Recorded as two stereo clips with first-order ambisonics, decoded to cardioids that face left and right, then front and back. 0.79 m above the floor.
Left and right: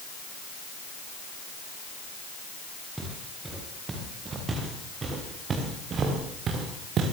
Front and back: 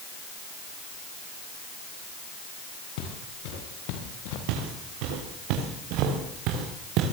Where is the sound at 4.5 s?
165° right, 7 m; by 7.1 s 145° right, 5.5 m.